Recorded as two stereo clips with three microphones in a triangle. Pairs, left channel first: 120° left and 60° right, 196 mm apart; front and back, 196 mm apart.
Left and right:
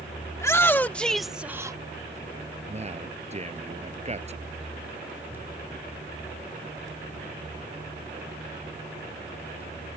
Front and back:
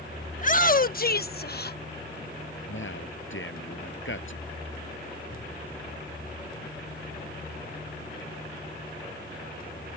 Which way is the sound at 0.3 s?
45° left.